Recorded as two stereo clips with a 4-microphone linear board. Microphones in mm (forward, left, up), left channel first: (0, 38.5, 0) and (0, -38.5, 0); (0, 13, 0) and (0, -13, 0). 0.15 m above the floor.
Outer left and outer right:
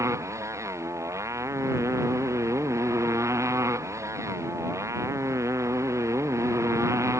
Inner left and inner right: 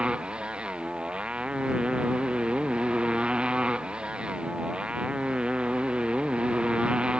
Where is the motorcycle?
40° right (ahead or behind).